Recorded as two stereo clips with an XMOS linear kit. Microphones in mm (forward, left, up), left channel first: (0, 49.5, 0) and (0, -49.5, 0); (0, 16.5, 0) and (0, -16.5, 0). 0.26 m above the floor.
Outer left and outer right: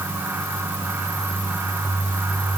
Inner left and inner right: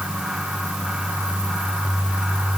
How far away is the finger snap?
No finger snap in this recording.